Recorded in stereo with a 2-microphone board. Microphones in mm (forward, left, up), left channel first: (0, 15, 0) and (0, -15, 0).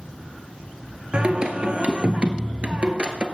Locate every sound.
1.1 s singing: 40° right (ahead or behind), 1.2 m